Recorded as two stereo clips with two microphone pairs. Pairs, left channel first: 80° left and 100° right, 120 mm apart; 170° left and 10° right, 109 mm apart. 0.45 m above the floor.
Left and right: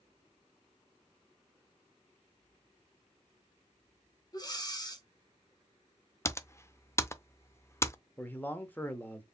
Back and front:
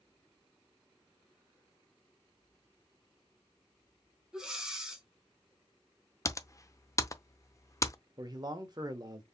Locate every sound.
4.3 s breathing: 70° left, 1.3 m
6.2 s typing on a keyboard: 130° left, 0.5 m
8.2 s a man speaking: 15° left, 1.1 m